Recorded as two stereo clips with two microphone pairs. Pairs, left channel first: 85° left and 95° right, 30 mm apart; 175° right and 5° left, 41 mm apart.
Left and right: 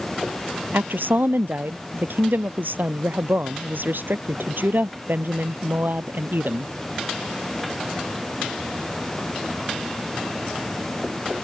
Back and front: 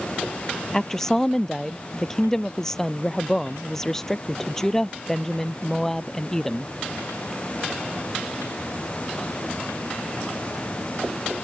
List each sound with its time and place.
0.7 s a woman speaking: 95° right